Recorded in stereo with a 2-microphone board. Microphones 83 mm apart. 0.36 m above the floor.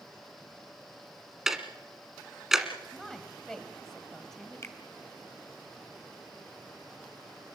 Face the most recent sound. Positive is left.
turn(degrees=35)  # may be behind; listen again after turning